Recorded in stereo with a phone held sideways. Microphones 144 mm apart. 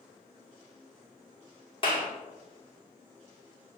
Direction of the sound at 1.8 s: 35° left (ahead or behind).